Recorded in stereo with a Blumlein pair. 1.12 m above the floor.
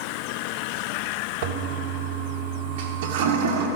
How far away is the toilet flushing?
About 1.2 m.